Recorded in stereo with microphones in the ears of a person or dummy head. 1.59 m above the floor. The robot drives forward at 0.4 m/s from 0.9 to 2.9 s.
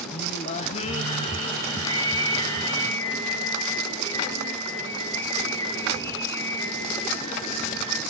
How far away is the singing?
About 0.6 m.